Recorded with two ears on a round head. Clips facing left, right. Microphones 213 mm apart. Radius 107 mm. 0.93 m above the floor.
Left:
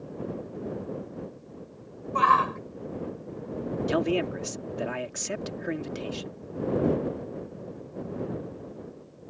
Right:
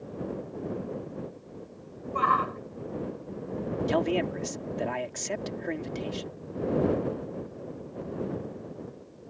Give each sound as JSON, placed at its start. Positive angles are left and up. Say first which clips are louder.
{"t": 2.1, "sound": "a shout", "louder": "left 3 dB", "side_deg": 60}
{"t": 3.9, "sound": "a man speaking", "louder": "left 1 dB", "side_deg": 10}